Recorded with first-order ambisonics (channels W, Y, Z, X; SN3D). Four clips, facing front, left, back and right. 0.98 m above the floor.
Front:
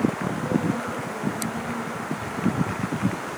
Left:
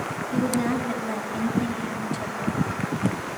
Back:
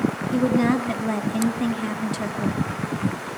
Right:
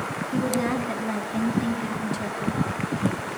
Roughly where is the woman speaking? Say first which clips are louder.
Left 1 dB, back 5 dB; behind.